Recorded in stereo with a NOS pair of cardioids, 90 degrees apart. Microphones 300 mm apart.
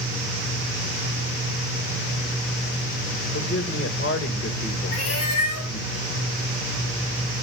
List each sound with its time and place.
3.3 s a man speaking: 40° left, 2.5 m
4.9 s a cat meowing: 50° left, 2.5 m